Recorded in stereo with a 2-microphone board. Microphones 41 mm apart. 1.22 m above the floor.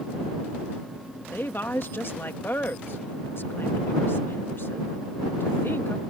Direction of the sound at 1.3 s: 60° left (ahead or behind).